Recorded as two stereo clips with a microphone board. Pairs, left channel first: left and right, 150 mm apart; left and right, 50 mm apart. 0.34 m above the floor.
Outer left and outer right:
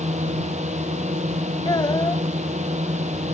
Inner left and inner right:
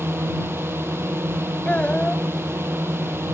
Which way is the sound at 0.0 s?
50° right (ahead or behind).